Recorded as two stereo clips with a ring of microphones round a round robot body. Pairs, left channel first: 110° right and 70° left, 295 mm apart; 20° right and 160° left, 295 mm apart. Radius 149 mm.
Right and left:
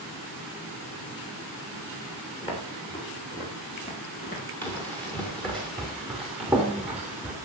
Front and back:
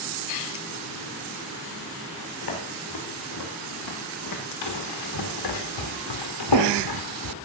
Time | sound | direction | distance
2.4 | footsteps | 40° right | 8.5 m
4.6 | running footsteps | 30° right | 5 m